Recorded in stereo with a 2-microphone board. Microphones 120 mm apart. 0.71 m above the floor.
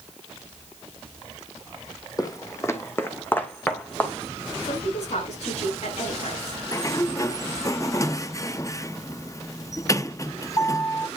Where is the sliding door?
30° left (ahead or behind), 0.6 m.